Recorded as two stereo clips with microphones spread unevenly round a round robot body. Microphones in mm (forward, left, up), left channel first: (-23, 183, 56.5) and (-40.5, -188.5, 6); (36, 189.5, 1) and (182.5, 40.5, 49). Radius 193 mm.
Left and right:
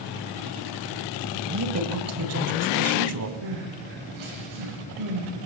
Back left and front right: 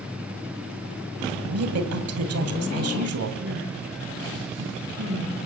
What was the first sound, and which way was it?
A woman speaking, 40° right.